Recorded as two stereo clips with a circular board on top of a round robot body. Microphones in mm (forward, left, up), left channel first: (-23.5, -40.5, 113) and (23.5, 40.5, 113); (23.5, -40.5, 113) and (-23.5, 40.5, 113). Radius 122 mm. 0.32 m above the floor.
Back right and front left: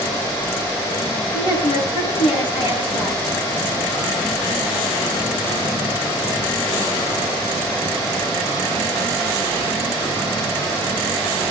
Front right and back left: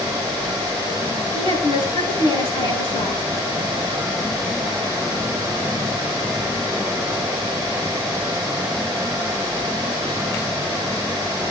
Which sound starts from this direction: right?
A woman speaking, at 1.3 s.